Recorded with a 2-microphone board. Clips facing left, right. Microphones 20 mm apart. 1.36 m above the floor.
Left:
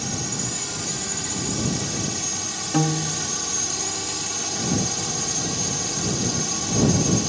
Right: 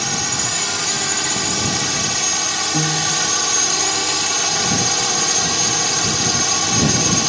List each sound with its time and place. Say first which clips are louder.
0.0 s a drone: right 8 dB; 40° right (ahead or behind)
2.7 s a piano: right 1 dB; 30° left (ahead or behind)